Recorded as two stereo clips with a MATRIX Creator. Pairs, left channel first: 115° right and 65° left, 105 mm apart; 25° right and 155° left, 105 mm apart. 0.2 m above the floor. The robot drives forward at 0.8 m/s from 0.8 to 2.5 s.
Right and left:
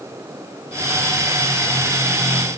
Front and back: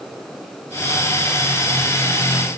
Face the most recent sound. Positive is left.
No sound to turn to.